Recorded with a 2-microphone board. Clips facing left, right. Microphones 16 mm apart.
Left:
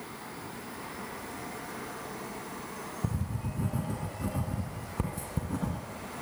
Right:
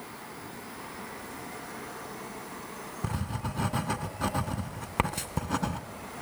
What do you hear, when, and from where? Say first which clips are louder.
3.0 s writing: right 3 dB; 65° right (ahead or behind), 1.8 m